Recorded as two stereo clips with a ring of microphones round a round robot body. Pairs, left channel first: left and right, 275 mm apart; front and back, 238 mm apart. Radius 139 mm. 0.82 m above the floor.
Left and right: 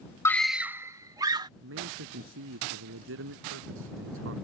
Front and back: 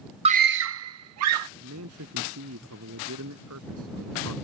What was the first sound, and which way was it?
A scream, 155° left.